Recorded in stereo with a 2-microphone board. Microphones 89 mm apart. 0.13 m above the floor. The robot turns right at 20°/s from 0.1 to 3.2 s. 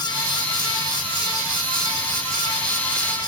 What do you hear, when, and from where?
Only background noise.